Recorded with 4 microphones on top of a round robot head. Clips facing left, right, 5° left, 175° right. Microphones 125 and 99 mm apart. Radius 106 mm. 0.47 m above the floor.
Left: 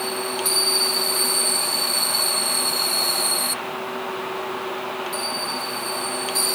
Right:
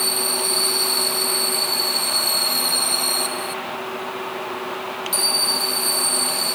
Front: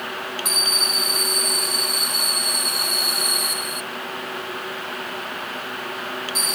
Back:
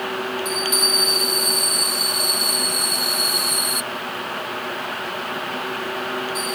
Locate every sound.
Only background noise.